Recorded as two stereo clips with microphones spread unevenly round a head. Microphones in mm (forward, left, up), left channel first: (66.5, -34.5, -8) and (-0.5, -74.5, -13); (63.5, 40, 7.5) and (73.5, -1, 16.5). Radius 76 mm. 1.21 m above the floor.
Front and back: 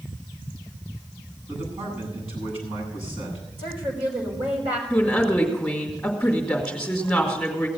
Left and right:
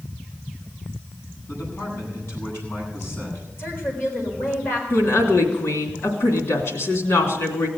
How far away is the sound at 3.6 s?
About 4.5 m.